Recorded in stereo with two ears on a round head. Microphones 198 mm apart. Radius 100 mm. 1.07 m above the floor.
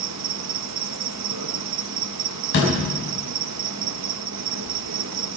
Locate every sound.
0.0 s an insect: 85° right, 0.7 m
2.5 s a door slam: 55° left (ahead or behind), 5.5 m